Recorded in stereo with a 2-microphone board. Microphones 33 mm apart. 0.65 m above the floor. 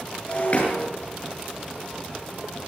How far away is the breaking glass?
About 8 m.